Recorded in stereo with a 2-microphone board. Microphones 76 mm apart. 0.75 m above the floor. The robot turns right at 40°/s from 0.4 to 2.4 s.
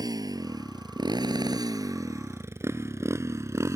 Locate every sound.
0.0 s a motorcycle: 65° right (ahead or behind); by 3.8 s 45° right (ahead or behind)